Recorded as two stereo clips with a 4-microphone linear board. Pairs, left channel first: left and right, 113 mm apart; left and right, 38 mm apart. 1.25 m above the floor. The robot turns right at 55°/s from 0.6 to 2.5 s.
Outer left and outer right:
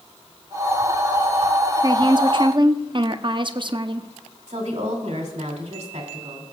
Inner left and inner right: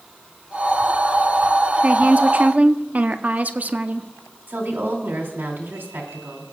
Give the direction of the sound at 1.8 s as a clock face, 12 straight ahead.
4 o'clock.